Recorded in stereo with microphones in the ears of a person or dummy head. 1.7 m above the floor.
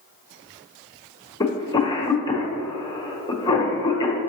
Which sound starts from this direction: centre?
A cough, at 1.4 s.